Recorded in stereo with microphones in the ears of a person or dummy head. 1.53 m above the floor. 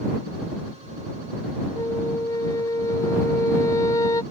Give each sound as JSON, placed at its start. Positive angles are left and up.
{"t": 1.8, "sound": "a flute", "side_deg": 20}